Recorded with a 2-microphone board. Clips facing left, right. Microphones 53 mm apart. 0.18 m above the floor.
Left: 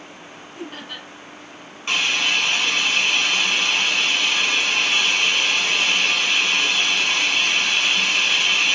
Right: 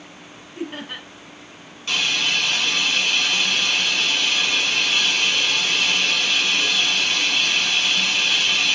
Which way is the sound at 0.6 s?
25° right (ahead or behind).